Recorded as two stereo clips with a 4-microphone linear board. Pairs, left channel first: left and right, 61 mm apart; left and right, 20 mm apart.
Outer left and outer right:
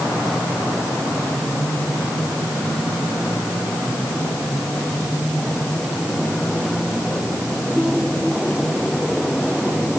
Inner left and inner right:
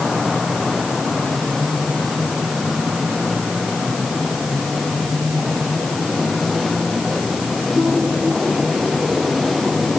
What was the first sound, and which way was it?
Only background noise.